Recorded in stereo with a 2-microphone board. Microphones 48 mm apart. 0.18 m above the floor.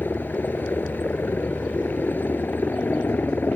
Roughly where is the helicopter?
Left.